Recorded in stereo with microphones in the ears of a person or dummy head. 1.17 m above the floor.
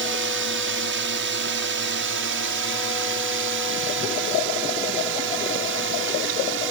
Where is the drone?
60° right (ahead or behind); by 6.7 s 65° right (ahead or behind).